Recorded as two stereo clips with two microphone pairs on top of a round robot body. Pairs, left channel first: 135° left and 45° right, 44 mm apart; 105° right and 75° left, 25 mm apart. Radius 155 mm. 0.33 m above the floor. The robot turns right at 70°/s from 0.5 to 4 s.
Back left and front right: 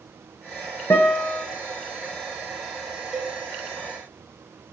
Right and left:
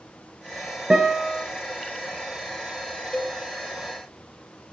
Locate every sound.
0.9 s a guitar: 120° left, 0.6 m; by 1.4 s 160° left, 0.6 m
3.1 s a cowbell: 125° right, 0.6 m; by 3.4 s 110° right, 0.6 m